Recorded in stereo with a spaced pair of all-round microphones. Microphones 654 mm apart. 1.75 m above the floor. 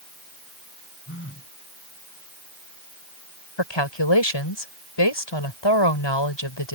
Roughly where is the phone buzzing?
Centre.